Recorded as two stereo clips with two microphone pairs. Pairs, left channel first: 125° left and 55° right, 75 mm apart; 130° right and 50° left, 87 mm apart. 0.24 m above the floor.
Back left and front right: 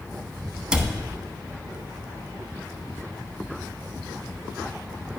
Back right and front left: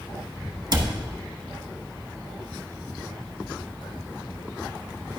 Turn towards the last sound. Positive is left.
turn(degrees=25)